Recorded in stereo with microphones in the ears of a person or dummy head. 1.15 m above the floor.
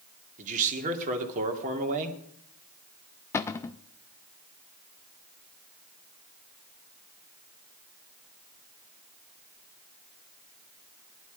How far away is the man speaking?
About 2 m.